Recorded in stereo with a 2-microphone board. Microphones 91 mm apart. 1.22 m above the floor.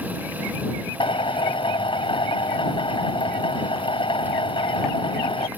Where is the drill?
75° left (ahead or behind).